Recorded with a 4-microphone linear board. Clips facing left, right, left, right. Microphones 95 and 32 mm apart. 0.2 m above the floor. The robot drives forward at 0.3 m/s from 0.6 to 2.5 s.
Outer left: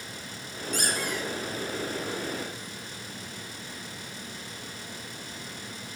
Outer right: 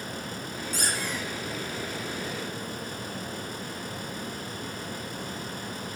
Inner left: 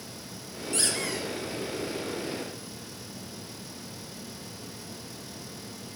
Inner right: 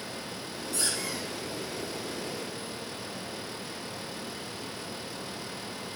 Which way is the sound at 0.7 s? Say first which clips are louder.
Outer left 2 dB, inner left 3 dB; 55° left (ahead or behind).